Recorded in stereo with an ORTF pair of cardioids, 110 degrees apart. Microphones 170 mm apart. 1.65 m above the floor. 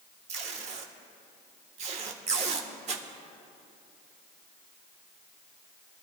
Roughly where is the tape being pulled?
Ahead right.